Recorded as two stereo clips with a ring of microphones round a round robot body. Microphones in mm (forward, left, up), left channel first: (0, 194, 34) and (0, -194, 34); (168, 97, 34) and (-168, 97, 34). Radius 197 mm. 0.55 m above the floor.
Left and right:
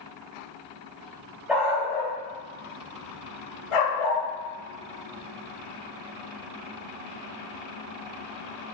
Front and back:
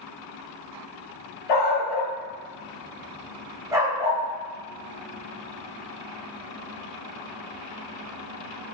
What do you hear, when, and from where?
1.5 s a dog barking: straight ahead, 0.7 m; by 4.2 s 105° left, 1.2 m